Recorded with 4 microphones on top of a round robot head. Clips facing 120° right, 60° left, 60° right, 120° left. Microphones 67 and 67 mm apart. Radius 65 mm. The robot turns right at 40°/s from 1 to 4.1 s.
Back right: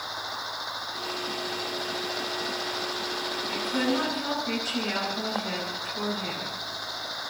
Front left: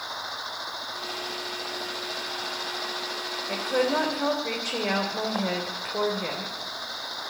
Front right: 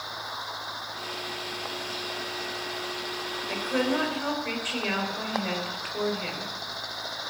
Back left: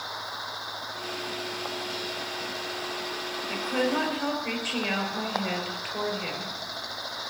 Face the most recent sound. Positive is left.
turn(degrees=35)